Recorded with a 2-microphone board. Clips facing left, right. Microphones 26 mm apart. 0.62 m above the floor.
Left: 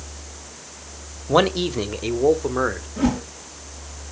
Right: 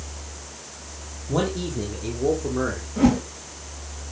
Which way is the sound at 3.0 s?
10° right (ahead or behind).